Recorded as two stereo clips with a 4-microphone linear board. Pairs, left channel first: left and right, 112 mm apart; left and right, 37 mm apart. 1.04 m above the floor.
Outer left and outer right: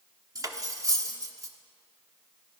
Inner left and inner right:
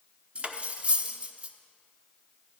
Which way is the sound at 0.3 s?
30° right (ahead or behind).